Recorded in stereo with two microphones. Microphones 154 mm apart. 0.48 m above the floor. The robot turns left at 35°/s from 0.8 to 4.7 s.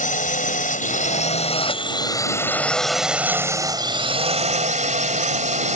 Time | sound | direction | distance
0.0 | a drone | 75° left | ?